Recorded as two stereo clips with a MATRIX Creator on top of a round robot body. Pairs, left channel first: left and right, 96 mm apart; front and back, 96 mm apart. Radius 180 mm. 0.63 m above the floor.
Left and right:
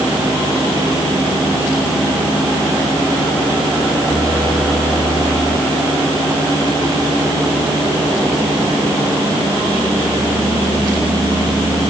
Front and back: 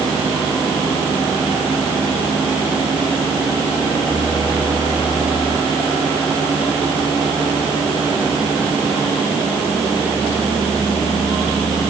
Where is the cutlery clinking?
I don't hear cutlery clinking.